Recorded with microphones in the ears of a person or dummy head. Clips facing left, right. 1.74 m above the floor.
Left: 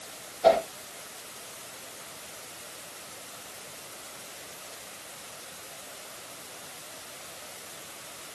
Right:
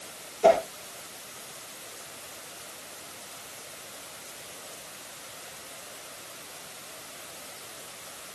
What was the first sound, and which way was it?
A whoosh, 50° right (ahead or behind).